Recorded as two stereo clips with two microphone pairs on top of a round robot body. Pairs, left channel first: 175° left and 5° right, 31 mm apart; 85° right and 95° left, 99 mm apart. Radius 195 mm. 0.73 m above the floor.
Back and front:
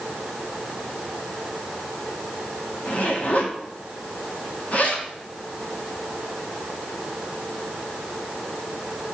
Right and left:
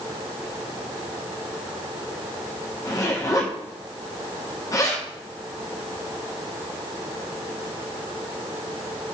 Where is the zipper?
145° right, 2 m.